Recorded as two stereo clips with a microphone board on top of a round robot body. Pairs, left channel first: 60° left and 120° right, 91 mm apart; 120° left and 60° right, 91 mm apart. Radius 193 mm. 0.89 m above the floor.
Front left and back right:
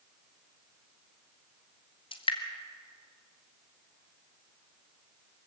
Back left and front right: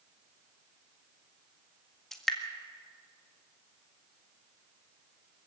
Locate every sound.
2.1 s dripping: 35° left, 2.0 m